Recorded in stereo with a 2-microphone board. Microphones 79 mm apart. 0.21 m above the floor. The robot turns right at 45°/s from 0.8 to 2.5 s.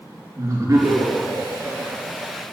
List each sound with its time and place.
0.4 s laughter: 135° right, 3.5 m; by 2.4 s 60° right, 3.5 m